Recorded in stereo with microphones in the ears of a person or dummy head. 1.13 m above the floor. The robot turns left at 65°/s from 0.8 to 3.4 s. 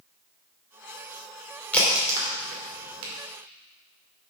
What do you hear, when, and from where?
1.7 s a crack: 10° left (ahead or behind), 2.5 m; by 3.1 s 80° right, 2.5 m